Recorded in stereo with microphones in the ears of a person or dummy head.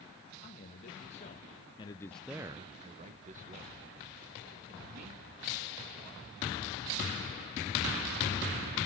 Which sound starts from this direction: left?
A man speaking, at 0.4 s.